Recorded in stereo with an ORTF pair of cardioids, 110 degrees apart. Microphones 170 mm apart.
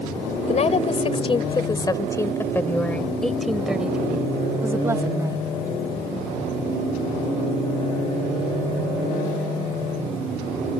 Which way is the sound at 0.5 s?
40° left.